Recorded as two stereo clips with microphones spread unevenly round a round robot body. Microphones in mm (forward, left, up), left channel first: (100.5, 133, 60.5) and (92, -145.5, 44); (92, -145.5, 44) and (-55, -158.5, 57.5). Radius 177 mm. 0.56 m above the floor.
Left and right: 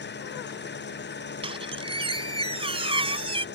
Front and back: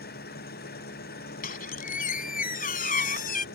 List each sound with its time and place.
0.0 s an engine running: 35° left
1.4 s a squeak: 20° right